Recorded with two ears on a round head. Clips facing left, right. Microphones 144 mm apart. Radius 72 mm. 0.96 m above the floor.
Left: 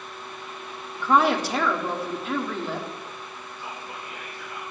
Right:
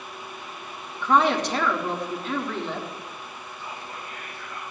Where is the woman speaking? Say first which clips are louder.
Even; 5° left (ahead or behind), 1.6 m.